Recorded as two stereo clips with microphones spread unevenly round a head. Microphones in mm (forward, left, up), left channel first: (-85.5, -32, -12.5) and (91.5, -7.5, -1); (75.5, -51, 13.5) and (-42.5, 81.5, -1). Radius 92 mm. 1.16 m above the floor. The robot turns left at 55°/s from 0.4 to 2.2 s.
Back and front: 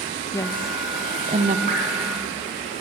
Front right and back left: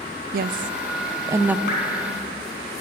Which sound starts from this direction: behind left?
A woman speaking, at 0.3 s.